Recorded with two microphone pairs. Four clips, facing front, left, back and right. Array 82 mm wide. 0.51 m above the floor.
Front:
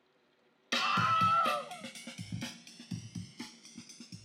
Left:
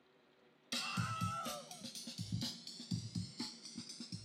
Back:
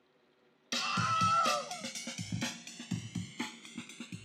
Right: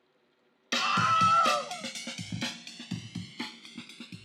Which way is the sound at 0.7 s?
65° right.